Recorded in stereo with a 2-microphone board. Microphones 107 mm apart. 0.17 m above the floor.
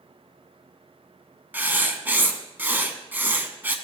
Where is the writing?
20° right (ahead or behind), 0.9 m.